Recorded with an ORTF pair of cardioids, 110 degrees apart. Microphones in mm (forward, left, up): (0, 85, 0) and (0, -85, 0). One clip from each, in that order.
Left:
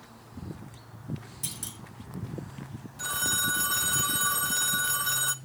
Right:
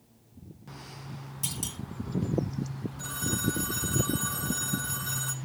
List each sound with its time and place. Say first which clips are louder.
1.4 s a clunk: right 4 dB; 15° right, 2 m
3.0 s a phone ringing: left 5 dB; 30° left, 0.6 m